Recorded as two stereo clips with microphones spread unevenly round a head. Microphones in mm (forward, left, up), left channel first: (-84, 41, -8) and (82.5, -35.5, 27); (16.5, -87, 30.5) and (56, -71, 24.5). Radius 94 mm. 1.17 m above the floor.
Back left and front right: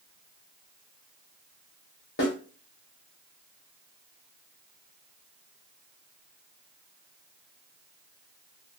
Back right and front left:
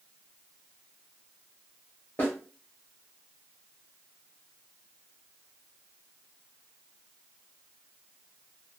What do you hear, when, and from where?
2.2 s a snare drum: 140° left, 1.4 m